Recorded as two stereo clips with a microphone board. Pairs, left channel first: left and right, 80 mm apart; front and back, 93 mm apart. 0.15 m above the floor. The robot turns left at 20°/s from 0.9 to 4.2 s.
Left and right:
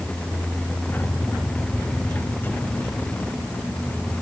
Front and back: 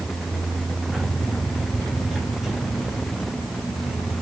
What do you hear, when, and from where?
Only background noise.